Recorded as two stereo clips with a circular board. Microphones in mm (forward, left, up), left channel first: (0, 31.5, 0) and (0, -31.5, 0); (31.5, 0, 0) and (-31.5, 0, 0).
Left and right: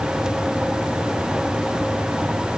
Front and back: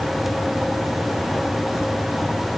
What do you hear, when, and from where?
Only background noise.